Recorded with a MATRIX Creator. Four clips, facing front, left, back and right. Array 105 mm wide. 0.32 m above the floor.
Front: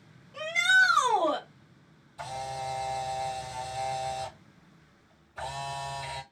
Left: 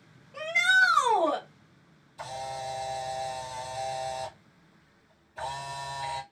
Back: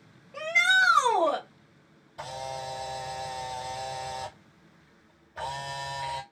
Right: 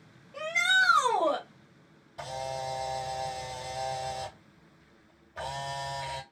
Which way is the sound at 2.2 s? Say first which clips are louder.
Right 1 dB, front 1 dB; 135° right.